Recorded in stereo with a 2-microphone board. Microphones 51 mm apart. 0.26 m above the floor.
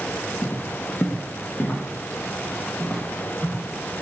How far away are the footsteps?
About 0.5 m.